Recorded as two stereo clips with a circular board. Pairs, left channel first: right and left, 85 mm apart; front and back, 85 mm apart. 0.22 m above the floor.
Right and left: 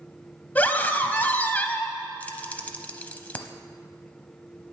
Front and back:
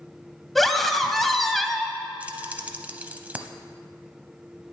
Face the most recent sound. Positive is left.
turn(degrees=-135)